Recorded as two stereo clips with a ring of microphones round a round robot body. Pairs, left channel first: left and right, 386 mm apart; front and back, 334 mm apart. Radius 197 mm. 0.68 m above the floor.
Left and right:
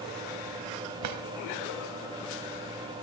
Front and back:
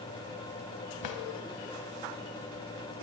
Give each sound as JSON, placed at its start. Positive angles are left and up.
{"t": 1.0, "sound": "a drawer", "azimuth_deg": -45, "distance_m": 0.9}